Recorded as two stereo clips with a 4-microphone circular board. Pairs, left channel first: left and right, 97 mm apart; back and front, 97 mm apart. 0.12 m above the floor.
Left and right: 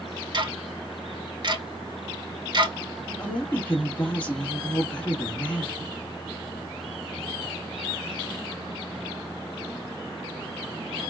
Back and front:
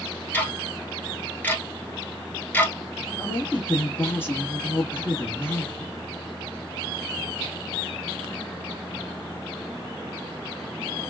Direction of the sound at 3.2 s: 150° left.